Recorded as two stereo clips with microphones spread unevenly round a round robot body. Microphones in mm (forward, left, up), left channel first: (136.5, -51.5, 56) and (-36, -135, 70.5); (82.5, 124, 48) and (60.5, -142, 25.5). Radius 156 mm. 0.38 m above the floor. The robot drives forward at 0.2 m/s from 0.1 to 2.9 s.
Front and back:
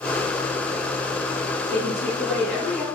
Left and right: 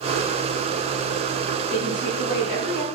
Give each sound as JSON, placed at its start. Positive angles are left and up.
{"t": 1.7, "sound": "a woman speaking", "azimuth_deg": 100, "distance_m": 1.7}